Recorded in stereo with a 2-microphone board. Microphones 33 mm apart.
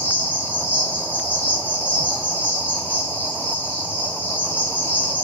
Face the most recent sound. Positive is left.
turn(degrees=75)  # may be behind; listen again after turning